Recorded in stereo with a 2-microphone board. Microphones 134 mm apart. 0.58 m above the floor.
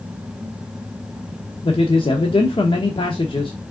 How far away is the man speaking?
About 1.0 m.